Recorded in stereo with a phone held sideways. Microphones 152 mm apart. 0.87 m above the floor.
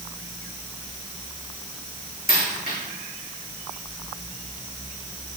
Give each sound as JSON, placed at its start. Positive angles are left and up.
{"t": 2.3, "sound": "a dropped coin", "side_deg": 70, "distance_m": 3.0}